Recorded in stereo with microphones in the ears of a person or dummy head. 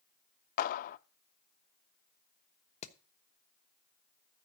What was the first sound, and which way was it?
A clap, 45° left (ahead or behind).